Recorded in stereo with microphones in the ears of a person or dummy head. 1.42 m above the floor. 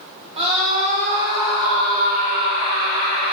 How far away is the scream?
About 1.6 m.